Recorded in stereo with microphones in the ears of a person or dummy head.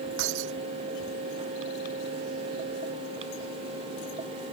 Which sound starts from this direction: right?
Breaking glass, at 0.2 s.